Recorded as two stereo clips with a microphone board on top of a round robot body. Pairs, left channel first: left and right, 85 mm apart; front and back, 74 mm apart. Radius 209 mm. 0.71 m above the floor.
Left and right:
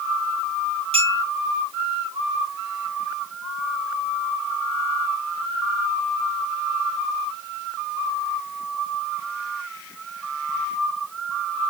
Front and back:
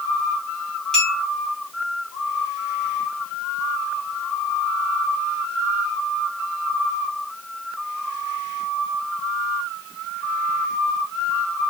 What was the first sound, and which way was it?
A clink, 85° right.